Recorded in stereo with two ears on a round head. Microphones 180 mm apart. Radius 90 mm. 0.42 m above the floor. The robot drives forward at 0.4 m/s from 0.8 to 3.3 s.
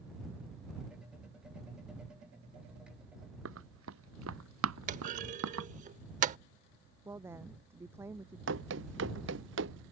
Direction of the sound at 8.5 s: 65° right (ahead or behind).